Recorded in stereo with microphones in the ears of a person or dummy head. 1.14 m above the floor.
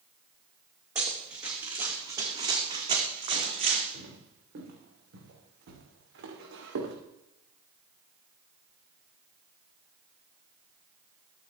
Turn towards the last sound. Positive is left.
turn(degrees=-80)